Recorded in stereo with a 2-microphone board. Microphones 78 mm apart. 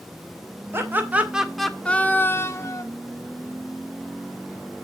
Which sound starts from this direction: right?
Laughter, at 0.7 s.